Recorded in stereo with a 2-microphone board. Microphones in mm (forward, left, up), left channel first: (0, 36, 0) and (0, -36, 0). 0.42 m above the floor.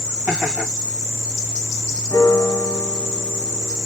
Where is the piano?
45° left (ahead or behind), 1.4 m.